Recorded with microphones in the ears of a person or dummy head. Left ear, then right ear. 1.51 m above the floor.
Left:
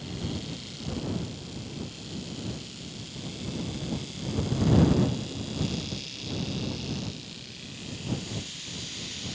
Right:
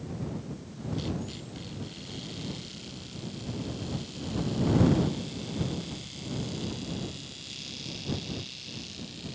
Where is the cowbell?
I don't hear a cowbell.